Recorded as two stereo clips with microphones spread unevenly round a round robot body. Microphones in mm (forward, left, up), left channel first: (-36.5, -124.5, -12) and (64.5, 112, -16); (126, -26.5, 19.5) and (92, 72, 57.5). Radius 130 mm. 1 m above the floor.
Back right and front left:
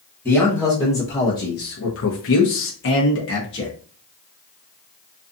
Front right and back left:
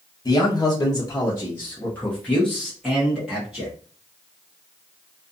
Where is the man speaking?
35° right, 1.0 m; by 3.7 s 160° right, 1.2 m.